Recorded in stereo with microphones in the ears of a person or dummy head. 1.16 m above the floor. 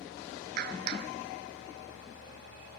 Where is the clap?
55° right (ahead or behind).